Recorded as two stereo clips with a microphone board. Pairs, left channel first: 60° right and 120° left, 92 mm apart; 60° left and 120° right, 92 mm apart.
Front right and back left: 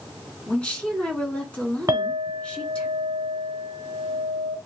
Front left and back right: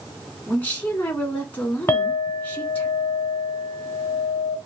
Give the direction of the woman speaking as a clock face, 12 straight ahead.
12 o'clock.